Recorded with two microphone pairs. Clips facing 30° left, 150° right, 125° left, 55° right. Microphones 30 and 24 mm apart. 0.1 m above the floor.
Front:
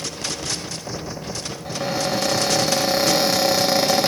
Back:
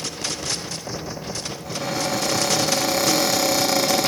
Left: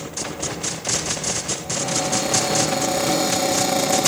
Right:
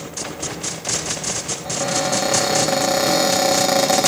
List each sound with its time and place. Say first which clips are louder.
1.6 s a cupboard door: front 2 dB, right 3 dB; 25° right, 3 m